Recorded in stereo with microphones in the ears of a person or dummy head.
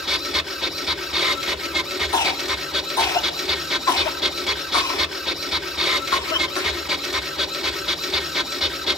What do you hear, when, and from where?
0.0 s a machine running: centre (ahead or behind), 1.7 m
2.1 s a cough: 20° left (ahead or behind), 3.5 m